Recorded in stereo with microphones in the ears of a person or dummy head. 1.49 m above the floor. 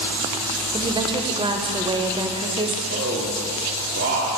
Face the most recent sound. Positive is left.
turn(degrees=-40)  # may be behind; listen again after turning